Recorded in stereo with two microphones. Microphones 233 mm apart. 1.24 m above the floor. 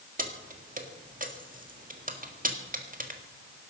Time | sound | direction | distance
0.2 | keys jangling | 35° right (ahead or behind) | 1.8 m